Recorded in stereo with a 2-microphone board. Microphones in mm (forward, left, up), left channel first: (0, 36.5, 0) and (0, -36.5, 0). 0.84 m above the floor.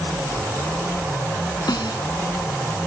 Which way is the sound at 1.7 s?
75° left (ahead or behind).